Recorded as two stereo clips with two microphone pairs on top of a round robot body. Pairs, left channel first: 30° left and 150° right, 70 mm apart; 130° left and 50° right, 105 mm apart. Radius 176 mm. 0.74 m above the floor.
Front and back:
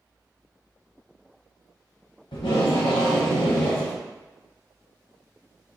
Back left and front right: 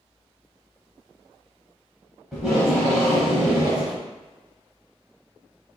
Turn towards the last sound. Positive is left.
turn(degrees=30)